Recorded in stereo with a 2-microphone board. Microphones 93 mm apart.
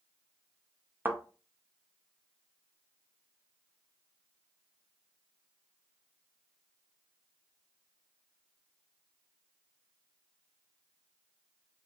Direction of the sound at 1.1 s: 20° right (ahead or behind).